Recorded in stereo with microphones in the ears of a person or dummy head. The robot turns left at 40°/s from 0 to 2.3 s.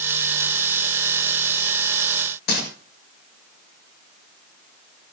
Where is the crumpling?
55° left (ahead or behind), 8 m.